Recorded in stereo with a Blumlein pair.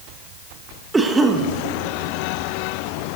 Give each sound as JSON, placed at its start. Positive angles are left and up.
{"t": 0.9, "sound": "a cough", "azimuth_deg": -10, "distance_m": 1.4}